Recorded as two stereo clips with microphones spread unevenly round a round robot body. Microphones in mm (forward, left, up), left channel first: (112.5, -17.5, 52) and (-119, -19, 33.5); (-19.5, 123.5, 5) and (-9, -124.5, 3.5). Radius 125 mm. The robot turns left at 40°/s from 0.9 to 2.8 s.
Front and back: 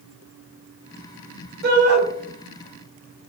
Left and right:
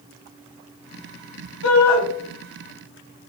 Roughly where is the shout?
Behind left.